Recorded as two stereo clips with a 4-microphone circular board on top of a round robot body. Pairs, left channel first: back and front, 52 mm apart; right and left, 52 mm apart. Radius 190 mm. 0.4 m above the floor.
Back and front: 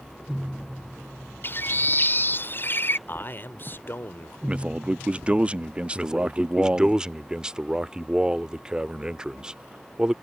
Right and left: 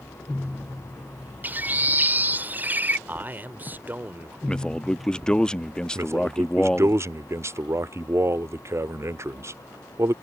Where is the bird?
140° left.